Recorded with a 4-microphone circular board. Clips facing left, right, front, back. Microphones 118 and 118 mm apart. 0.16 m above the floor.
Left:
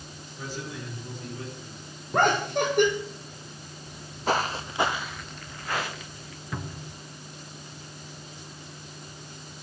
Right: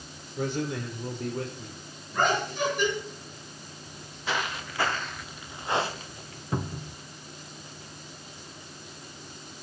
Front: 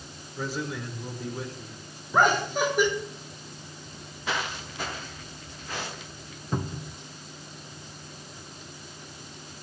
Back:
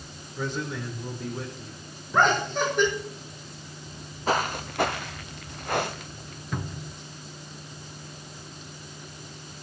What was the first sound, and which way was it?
A man speaking, 85° right.